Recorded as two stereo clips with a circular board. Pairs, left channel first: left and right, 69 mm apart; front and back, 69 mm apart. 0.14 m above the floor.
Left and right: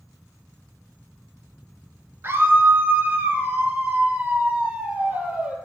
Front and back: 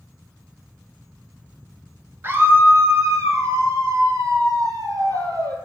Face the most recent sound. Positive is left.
turn(degrees=-160)